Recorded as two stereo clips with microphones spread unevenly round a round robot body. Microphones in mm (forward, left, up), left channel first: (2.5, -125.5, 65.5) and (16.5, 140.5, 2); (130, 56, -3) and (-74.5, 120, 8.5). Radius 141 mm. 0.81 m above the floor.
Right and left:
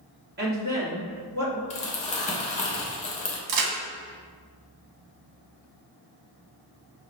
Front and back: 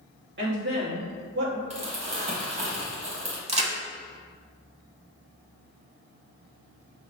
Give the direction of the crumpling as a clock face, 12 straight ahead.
5 o'clock.